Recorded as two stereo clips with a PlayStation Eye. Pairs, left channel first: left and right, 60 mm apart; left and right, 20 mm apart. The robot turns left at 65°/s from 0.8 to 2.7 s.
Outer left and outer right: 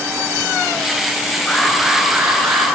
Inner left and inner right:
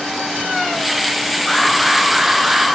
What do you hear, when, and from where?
1.5 s an alarm: 15° left, 4 m; by 2.7 s 65° right, 4 m